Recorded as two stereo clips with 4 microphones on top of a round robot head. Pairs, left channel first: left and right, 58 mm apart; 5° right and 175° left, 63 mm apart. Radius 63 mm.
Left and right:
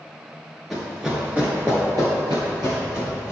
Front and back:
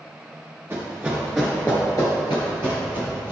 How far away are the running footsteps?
About 1.6 m.